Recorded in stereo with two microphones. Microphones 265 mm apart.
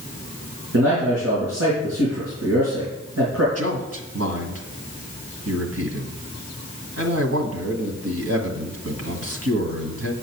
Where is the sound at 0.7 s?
75° right (ahead or behind), 4.5 m.